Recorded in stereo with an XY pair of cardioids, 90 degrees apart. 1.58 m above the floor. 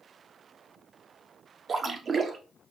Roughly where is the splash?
Ahead right.